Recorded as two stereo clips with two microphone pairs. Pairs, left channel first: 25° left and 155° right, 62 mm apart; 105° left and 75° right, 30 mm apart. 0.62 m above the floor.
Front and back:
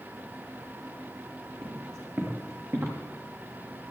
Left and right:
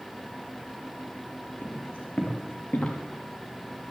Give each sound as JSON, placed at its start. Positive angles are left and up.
{"t": 1.6, "sound": "footsteps", "azimuth_deg": 155, "distance_m": 5.0}